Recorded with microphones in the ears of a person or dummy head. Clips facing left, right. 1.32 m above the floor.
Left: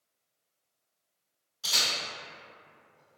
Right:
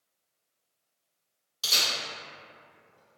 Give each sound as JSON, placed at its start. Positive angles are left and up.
{"t": 1.6, "sound": "a camera shutter", "side_deg": -80, "distance_m": 1.9}